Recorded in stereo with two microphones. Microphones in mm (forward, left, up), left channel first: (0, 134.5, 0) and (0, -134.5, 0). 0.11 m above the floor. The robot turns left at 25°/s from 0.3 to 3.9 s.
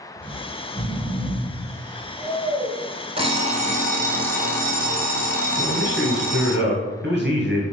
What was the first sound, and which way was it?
Snoring, 10° right (ahead or behind).